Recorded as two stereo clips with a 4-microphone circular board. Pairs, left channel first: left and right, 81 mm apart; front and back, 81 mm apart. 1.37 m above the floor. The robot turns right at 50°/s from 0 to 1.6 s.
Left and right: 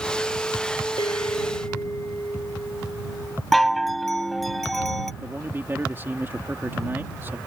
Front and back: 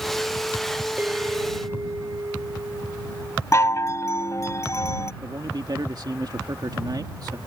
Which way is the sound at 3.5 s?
Straight ahead.